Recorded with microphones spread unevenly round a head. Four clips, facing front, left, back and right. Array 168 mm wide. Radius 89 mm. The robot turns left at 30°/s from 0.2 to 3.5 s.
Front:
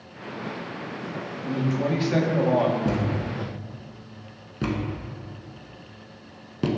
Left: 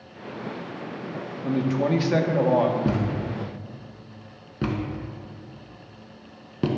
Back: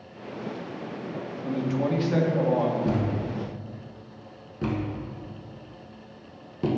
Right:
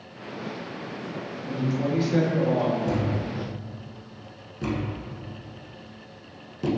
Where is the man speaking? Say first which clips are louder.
Left 4 dB, front 1 dB; 80° left, 1.4 m; by 2.8 s 40° left, 1.4 m.